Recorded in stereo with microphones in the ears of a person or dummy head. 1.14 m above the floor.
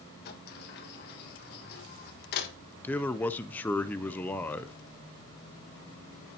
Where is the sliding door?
50° left (ahead or behind), 1.4 m.